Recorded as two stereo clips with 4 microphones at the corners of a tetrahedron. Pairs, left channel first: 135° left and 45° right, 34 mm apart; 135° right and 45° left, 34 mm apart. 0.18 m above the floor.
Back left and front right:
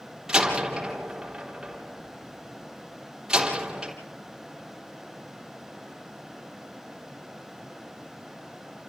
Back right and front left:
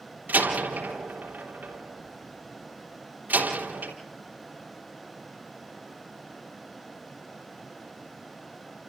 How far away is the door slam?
About 3.5 m.